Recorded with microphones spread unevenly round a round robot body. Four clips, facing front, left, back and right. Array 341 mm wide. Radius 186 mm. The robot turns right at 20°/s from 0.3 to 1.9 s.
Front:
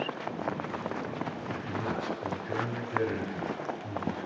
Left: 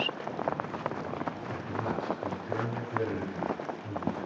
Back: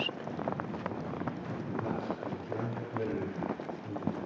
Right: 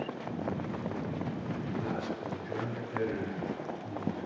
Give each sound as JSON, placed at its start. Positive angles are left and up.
{"t": 1.5, "sound": "a man speaking", "azimuth_deg": 30, "distance_m": 4.5}